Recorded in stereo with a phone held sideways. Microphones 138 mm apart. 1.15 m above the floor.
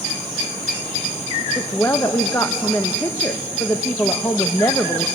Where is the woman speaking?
15° left (ahead or behind), 0.9 m.